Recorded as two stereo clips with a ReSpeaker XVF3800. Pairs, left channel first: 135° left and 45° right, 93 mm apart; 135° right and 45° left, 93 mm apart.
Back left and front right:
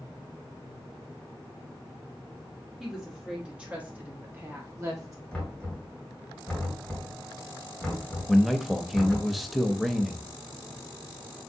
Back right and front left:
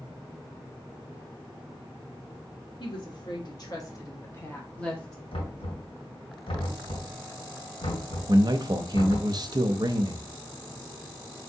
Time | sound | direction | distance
2.8 | a woman speaking | 130° right | 1.4 m
5.3 | knocking | 140° right | 2 m
8.3 | a man speaking | 45° left | 0.5 m